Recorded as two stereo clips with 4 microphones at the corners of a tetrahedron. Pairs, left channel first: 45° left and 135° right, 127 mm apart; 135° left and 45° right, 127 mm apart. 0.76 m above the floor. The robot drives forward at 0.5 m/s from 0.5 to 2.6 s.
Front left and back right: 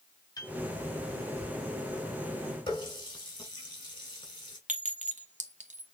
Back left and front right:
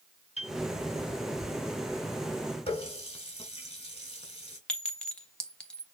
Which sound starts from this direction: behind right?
A clink, at 4.7 s.